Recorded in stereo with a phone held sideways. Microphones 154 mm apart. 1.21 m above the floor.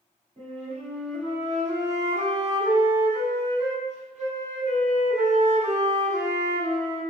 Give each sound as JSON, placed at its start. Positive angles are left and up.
{"t": 0.4, "sound": "a flute", "side_deg": -45, "distance_m": 1.5}